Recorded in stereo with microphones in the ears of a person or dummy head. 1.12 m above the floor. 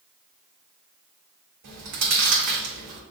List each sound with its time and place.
1.6 s chewing: 60° right (ahead or behind), 1.1 m